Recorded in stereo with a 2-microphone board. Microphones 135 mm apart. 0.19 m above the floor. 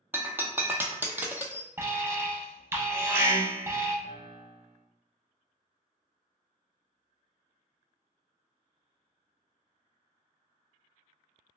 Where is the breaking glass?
15° right (ahead or behind), 0.6 m.